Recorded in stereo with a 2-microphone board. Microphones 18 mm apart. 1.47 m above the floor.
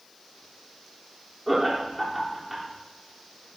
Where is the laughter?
5° right (ahead or behind), 4 m.